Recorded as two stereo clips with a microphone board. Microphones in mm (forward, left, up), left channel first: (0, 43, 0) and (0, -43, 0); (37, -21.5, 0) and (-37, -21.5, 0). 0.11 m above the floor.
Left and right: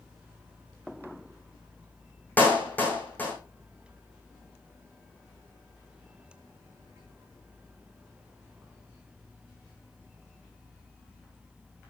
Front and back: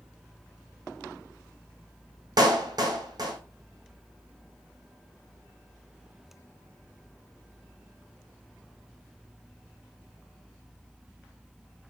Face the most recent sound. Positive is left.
turn(degrees=155)